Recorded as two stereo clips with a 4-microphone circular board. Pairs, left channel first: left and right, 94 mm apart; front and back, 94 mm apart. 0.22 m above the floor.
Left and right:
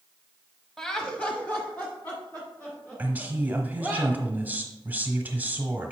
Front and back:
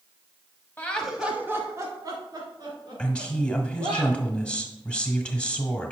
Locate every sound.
0.8 s laughter: 15° left, 1.1 m; by 4.0 s 160° left, 3.5 m
3.0 s a woman speaking: 55° right, 1.2 m